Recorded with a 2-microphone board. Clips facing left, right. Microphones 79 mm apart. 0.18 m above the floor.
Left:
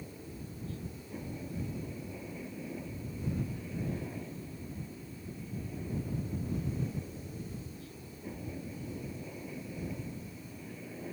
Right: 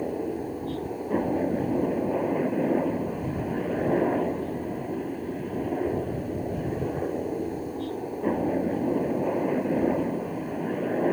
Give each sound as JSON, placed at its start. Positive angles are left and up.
{"t": 0.0, "sound": "a helicopter", "side_deg": -70}